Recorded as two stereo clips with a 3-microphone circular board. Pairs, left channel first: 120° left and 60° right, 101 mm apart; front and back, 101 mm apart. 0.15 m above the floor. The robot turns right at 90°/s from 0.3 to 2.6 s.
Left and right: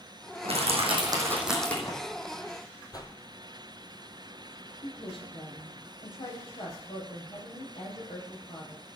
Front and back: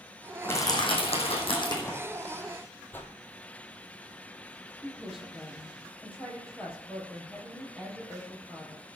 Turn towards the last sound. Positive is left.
turn(degrees=95)